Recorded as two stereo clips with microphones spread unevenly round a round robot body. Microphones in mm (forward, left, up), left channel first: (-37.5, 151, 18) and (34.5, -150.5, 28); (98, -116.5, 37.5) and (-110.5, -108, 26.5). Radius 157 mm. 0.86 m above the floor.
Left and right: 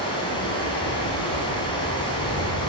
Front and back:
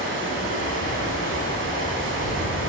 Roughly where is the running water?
Behind.